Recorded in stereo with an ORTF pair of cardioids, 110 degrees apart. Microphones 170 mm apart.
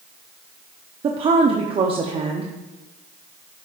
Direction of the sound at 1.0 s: 35° right.